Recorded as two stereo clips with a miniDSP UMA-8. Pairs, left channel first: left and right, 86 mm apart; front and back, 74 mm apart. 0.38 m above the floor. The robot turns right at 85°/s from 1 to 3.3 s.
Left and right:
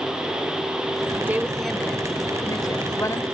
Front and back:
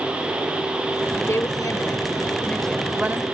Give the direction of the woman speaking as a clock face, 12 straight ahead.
1 o'clock.